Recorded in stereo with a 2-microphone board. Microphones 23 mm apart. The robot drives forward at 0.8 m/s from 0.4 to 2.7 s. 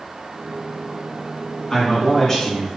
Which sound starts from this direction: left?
A man speaking, at 1.7 s.